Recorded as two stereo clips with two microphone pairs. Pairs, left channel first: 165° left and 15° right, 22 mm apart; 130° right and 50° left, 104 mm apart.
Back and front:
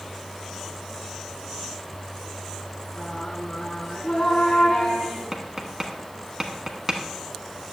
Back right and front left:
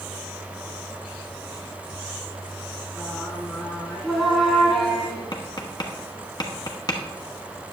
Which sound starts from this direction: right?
Tapping, at 5.3 s.